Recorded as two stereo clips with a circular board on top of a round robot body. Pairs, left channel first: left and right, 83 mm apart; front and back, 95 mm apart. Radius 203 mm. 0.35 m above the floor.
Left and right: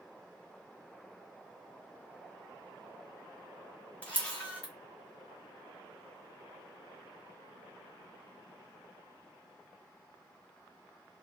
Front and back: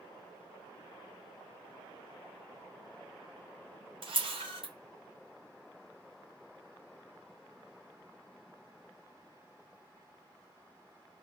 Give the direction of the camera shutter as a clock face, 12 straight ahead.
7 o'clock.